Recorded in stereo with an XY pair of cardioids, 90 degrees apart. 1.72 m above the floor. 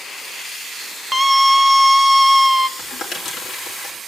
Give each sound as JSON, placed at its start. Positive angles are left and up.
{"t": 1.1, "sound": "a scream", "azimuth_deg": -5, "distance_m": 1.4}
{"t": 2.8, "sound": "crumpling", "azimuth_deg": 65, "distance_m": 4.5}